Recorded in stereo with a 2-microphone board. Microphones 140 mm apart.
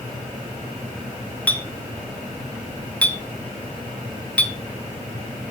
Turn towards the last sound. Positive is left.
turn(degrees=10)  # may be behind; listen again after turning